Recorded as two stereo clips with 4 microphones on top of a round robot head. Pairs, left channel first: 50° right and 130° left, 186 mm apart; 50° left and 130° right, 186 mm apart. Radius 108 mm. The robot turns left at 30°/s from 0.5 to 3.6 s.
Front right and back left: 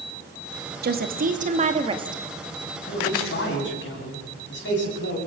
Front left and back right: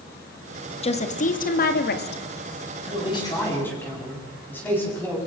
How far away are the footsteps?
I don't hear footsteps.